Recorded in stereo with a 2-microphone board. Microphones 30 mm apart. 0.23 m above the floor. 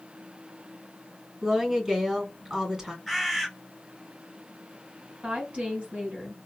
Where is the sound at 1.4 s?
20° right (ahead or behind), 2.5 m.